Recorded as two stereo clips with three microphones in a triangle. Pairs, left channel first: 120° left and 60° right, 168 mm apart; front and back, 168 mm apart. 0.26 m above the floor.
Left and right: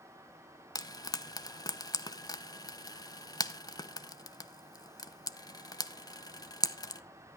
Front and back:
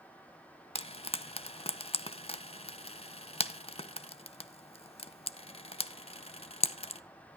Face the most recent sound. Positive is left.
turn(degrees=55)